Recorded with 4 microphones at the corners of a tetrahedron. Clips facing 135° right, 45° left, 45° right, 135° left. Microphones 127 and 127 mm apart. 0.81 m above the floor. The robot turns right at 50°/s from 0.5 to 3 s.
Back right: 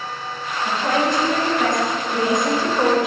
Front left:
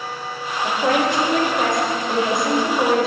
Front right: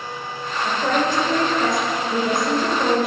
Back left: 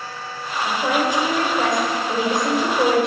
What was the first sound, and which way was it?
A woman speaking, 40° left.